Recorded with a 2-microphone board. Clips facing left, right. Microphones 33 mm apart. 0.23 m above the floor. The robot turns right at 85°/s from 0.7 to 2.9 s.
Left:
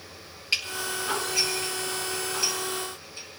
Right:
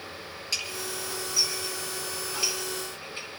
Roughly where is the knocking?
No knocking in this recording.